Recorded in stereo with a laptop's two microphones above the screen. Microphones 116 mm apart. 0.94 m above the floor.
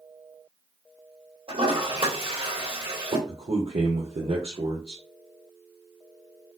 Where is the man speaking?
60° right (ahead or behind), 0.8 m.